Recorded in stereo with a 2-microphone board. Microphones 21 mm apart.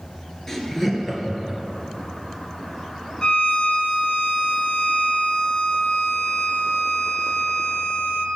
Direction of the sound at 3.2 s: 45° left (ahead or behind).